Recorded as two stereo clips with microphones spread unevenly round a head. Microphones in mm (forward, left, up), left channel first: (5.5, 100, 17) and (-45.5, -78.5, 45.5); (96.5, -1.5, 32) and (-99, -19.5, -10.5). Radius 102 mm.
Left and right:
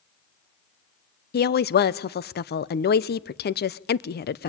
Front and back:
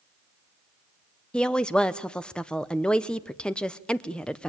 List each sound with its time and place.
1.3 s a woman speaking: 95° left, 0.8 m